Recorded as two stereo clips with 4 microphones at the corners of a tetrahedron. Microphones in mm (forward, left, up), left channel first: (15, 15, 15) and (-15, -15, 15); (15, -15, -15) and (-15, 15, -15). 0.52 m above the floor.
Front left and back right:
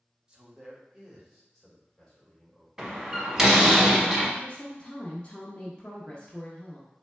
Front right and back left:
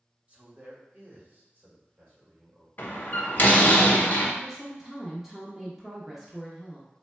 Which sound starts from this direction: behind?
A man speaking, at 0.3 s.